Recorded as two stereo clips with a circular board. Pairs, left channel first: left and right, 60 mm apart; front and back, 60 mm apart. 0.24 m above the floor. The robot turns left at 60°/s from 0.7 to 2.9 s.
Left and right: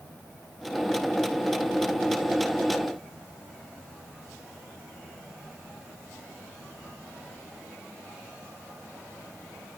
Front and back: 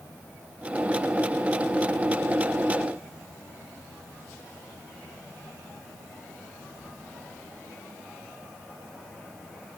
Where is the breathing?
I don't hear breathing.